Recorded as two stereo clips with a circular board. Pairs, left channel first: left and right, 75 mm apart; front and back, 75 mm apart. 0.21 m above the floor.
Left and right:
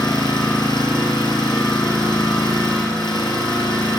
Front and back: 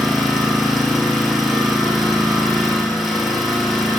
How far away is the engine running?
About 2 m.